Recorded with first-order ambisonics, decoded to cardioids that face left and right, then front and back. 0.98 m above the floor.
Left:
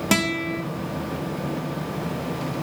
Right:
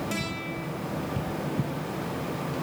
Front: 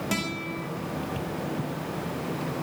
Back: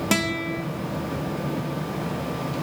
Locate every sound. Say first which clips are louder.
0.1 s a guitar: left 9 dB, back 8 dB; 120° left, 1.0 m